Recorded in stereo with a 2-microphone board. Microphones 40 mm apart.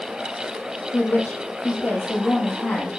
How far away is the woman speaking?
About 8.5 m.